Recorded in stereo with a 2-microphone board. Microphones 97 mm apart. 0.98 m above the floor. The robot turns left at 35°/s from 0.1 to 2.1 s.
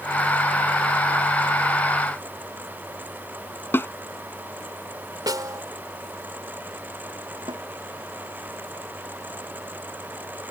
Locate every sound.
3.7 s a snare drum: 25° left (ahead or behind)
5.3 s a snare drum: 40° right (ahead or behind)
7.5 s a snare drum: 55° right (ahead or behind)